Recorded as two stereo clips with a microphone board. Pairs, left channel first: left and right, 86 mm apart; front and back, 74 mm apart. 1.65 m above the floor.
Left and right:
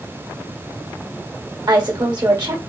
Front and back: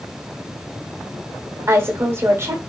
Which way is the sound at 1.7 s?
125° right.